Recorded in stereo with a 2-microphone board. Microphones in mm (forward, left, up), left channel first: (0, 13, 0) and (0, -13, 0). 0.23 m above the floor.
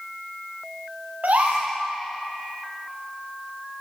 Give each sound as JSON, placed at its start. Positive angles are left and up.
{"t": 1.2, "sound": "a gasp", "side_deg": -80, "distance_m": 6.0}